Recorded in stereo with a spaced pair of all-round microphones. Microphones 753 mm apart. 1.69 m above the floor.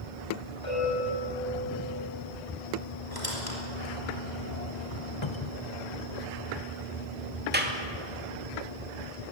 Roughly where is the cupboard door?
Left.